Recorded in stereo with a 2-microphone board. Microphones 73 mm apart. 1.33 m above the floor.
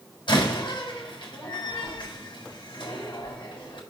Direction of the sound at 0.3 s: 90° left.